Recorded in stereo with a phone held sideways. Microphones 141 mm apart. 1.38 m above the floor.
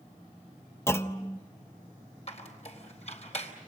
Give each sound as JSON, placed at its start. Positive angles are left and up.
{"t": 0.9, "sound": "a clunk", "side_deg": 20, "distance_m": 0.9}
{"t": 2.3, "sound": "a squeak", "side_deg": 50, "distance_m": 3.5}